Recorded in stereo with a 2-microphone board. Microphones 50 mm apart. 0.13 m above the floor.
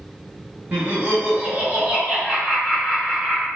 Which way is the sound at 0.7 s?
35° right (ahead or behind).